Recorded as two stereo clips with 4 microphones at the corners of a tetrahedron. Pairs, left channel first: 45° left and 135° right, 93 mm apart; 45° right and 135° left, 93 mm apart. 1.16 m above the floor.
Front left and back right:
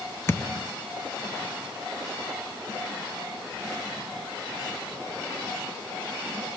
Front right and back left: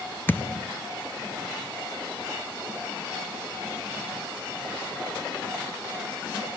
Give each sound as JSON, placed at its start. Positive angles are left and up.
{"t": 0.3, "sound": "a thud", "azimuth_deg": 5, "distance_m": 0.5}